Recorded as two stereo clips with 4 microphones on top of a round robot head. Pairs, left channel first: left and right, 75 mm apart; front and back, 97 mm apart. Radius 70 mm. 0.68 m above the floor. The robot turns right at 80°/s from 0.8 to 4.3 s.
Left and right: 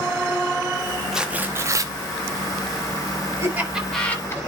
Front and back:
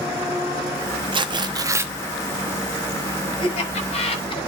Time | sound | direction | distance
1.1 | tearing paper | 175° right | 0.8 m
3.4 | laughter | 35° right | 4.5 m